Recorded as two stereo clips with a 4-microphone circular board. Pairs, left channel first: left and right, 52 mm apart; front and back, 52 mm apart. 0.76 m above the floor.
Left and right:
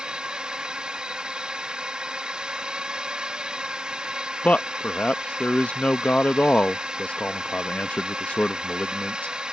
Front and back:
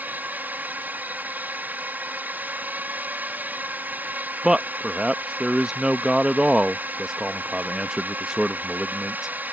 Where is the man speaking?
120° left.